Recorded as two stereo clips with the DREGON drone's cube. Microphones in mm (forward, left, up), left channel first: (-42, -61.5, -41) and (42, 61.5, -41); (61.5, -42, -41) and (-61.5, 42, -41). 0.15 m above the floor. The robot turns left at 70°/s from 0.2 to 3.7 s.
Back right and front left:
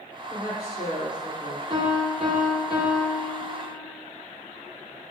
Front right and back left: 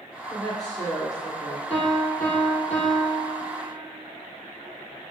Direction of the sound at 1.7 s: 5° left.